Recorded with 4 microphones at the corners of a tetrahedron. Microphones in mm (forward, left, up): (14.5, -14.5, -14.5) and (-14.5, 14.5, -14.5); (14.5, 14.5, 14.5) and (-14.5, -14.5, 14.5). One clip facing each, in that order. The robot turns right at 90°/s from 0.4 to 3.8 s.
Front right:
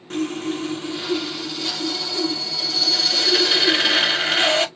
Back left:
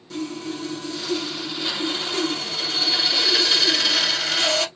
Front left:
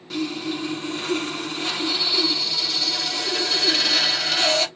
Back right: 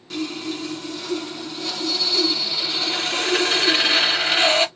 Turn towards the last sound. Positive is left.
turn(degrees=-90)